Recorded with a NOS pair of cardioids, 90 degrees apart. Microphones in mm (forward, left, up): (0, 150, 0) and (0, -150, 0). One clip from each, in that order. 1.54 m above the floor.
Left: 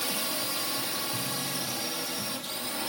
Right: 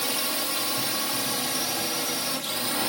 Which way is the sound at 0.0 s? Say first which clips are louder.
Right 3 dB; 25° right.